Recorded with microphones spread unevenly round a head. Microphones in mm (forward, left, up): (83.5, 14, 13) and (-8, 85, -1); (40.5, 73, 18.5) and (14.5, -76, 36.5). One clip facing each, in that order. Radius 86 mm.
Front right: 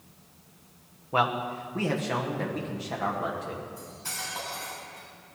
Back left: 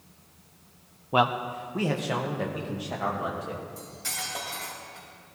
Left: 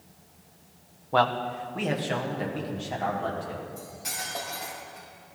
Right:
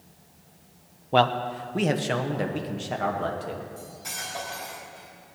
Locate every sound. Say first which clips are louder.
1.1 s a man speaking: back left 2 dB, right 2 dB; 165° right, 0.6 m; by 3.6 s 135° right, 2.5 m
3.8 s cutlery clinking: back left 1 dB, left 1 dB; 160° left, 4 m